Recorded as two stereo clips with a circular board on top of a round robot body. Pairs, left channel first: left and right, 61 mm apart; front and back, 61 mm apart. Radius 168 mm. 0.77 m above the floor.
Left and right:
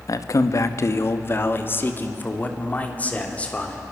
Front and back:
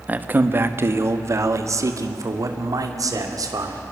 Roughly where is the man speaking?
Behind left.